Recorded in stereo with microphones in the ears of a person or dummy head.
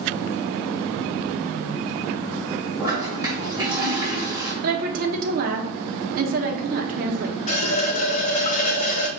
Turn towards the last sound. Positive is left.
turn(degrees=40)  # may be behind; listen again after turning